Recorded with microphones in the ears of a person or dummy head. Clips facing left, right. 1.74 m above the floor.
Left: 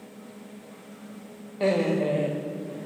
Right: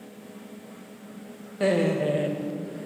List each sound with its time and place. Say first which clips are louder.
1.6 s laughter: even; 10° right (ahead or behind), 0.7 m